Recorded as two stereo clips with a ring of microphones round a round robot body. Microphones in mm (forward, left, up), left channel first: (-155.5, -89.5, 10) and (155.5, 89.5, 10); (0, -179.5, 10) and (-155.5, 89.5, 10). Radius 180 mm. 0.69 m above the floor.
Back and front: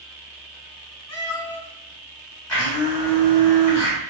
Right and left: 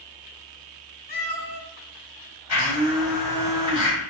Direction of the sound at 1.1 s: 120° right.